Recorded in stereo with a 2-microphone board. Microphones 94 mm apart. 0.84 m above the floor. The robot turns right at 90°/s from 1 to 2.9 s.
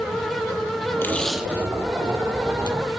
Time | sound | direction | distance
1.0 | tape being pulled | 25° left (ahead or behind) | 1.9 m